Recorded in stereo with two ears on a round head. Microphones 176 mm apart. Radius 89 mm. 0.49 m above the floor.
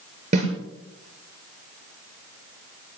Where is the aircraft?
I don't hear an aircraft.